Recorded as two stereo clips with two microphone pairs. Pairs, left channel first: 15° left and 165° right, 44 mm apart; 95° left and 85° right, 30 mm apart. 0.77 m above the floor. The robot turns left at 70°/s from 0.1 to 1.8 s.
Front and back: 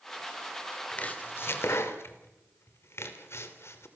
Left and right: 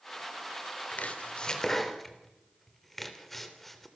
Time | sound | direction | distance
0.9 | chopping | 80° left | 3 m